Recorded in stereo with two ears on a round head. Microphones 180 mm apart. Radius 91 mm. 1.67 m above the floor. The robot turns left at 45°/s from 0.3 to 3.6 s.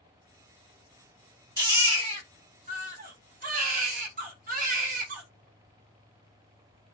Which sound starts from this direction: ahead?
A baby crying, at 1.6 s.